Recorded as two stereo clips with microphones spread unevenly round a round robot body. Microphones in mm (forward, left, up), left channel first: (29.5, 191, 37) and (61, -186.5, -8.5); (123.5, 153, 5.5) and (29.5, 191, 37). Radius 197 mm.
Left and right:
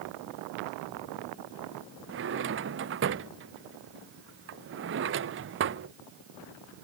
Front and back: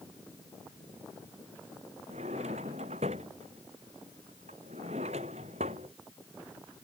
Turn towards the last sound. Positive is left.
turn(degrees=-145)